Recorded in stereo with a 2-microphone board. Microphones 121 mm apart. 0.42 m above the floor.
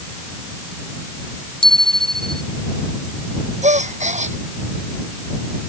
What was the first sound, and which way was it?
A bicycle bell, 45° left (ahead or behind).